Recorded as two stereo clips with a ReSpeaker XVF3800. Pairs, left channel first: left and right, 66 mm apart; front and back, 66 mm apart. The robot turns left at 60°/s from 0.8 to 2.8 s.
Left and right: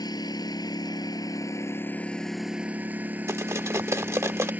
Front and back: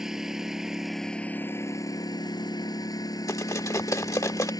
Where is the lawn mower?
95° left; by 4.6 s 25° right.